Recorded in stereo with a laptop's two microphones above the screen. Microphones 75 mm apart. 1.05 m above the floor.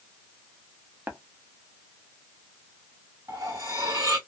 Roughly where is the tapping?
Right.